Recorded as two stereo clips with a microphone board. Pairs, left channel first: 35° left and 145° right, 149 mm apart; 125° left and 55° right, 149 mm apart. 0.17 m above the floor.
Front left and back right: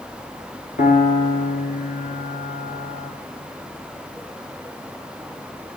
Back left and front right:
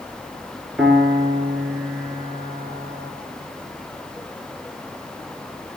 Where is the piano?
25° left, 1.0 m.